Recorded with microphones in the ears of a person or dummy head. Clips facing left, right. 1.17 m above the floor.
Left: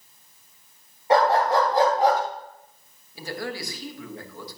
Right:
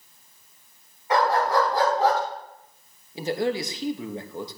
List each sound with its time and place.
1.1 s a dog barking: 30° left (ahead or behind), 3 m; by 2.2 s 15° left (ahead or behind), 3 m
3.1 s a man speaking: 20° right (ahead or behind), 1.1 m